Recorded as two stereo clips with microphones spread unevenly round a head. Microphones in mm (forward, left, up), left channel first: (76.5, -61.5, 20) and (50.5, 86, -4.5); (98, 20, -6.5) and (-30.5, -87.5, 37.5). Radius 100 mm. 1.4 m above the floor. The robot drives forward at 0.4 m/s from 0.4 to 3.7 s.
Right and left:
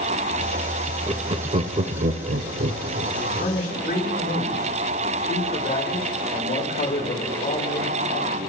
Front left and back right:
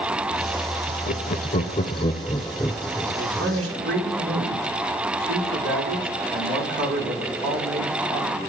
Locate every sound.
1.1 s laughter: 50° left, 0.8 m; by 3.5 s 140° left, 0.8 m
3.1 s a man speaking: 130° right, 5 m